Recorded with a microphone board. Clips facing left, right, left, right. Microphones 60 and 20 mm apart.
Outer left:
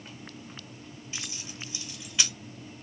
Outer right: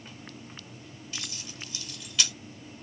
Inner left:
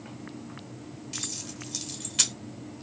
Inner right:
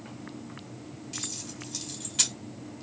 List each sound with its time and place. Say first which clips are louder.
1.1 s keys jangling: even, inner left 1 dB; 25° left (ahead or behind), 0.9 m